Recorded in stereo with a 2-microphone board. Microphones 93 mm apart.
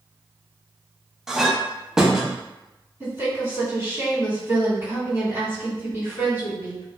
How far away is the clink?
About 0.6 m.